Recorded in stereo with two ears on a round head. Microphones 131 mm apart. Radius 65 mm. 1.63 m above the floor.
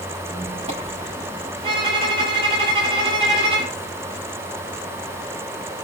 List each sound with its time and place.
0.3 s a squeak: 45° right (ahead or behind), 6 m
1.6 s a violin: 35° right (ahead or behind), 4 m